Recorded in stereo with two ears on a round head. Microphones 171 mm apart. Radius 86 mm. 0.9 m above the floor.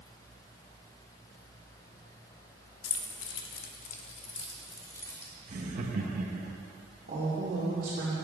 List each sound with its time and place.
2.8 s keys jangling: 85° left, 0.8 m; by 5.3 s 15° left (ahead or behind), 1.4 m
5.5 s laughter: 45° right (ahead or behind), 1.1 m
7.1 s a woman speaking: 45° right (ahead or behind), 2.5 m